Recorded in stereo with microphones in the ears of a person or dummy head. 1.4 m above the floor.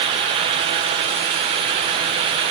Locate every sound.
Only background noise.